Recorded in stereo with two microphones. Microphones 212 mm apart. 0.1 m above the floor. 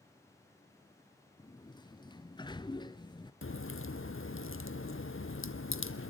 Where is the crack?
75° left (ahead or behind), 1.0 m.